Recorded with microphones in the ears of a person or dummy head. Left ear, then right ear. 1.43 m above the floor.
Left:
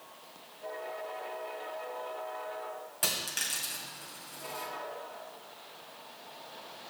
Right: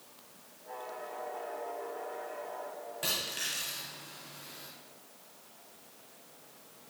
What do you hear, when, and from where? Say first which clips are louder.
3.0 s a dropped coin: left 1 dB; 35° left (ahead or behind), 2 m